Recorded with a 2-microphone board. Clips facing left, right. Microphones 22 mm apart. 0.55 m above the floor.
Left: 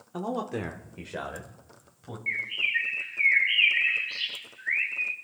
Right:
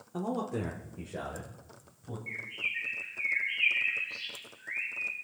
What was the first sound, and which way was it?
A man speaking, 30° left (ahead or behind).